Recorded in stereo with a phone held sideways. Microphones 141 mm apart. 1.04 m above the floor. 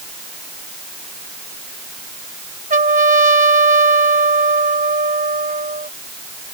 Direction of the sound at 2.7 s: 75° right (ahead or behind).